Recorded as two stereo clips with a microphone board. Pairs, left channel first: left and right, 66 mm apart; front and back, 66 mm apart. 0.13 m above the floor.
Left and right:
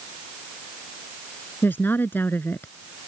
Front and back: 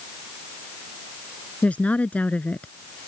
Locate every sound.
1.6 s a woman speaking: 55° left